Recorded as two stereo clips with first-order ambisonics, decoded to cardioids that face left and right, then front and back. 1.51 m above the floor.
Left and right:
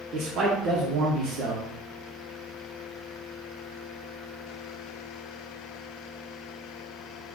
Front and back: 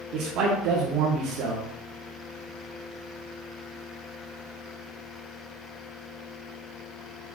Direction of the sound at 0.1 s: 145° right.